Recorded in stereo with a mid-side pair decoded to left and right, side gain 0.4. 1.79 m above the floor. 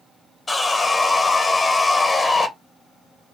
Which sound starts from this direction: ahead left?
Sawing, at 0.5 s.